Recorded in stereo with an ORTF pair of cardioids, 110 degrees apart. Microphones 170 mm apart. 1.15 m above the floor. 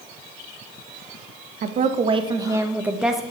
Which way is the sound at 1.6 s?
50° right.